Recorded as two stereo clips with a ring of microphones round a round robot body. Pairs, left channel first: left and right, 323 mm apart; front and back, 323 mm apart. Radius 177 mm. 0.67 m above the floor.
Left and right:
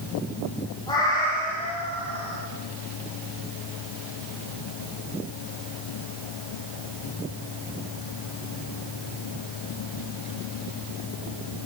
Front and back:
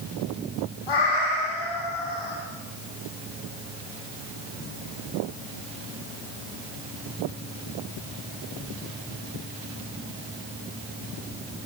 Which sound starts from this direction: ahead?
A cat meowing, at 0.9 s.